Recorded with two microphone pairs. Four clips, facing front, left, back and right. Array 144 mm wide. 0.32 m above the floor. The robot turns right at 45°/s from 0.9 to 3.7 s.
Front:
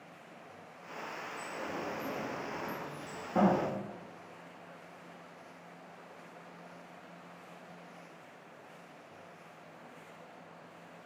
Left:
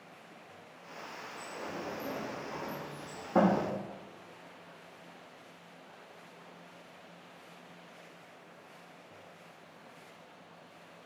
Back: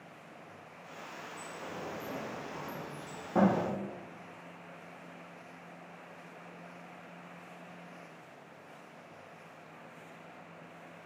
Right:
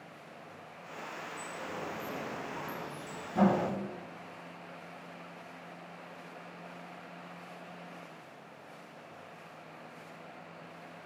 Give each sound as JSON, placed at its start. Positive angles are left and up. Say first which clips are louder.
{"t": 1.4, "sound": "a sliding door", "louder": "left 1 dB, front 3 dB", "azimuth_deg": 15, "distance_m": 6.0}